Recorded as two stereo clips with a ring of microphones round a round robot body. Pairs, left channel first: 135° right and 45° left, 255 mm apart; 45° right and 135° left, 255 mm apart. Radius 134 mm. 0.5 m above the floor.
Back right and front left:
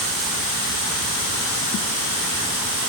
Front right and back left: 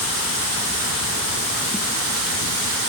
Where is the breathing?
No breathing in this recording.